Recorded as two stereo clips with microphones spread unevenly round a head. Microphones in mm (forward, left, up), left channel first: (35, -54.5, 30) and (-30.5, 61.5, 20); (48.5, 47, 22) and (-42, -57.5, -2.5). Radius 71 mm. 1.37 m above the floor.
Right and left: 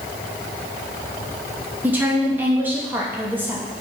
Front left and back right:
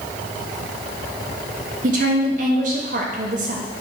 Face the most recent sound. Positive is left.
turn(degrees=-165)